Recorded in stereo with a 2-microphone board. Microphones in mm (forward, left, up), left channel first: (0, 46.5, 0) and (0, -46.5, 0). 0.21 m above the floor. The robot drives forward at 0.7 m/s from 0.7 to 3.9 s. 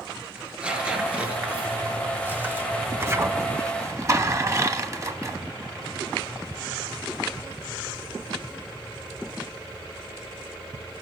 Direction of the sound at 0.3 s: 10° right (ahead or behind).